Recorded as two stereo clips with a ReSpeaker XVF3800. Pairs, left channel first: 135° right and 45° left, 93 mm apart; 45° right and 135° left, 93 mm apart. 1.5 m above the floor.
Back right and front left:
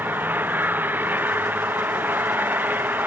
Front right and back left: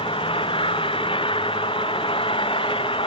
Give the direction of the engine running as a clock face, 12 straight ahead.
1 o'clock.